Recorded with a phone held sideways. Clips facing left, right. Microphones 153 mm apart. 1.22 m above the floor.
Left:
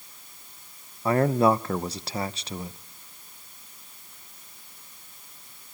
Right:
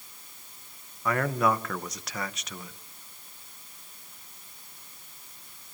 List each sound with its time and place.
1.1 s a man speaking: 30° left (ahead or behind), 0.9 m